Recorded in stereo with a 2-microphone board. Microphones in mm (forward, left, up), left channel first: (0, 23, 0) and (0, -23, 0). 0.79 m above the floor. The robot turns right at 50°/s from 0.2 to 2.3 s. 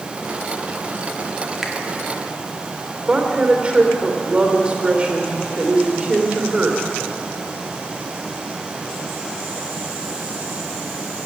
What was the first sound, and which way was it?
A finger snap, 5° right (ahead or behind).